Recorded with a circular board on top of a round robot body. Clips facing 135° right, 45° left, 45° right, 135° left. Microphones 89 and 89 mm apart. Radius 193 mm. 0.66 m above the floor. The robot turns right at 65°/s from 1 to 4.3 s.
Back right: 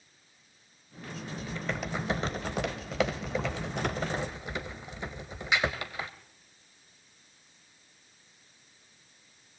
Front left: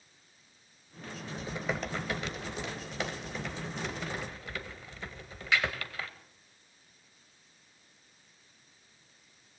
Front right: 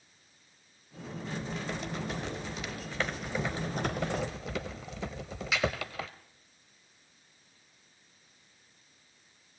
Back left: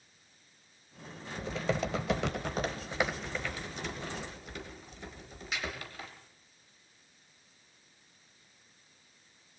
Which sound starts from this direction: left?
Typing on a keyboard, at 1.4 s.